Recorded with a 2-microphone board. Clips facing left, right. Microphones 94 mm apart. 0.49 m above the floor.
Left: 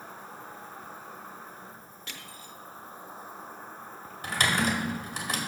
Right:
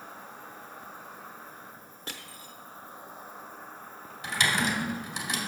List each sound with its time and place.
0.0 s an insect: 40° left (ahead or behind), 2 m
2.1 s crushing: 40° right (ahead or behind), 0.8 m
4.2 s typing on a keyboard: 50° left (ahead or behind), 1.8 m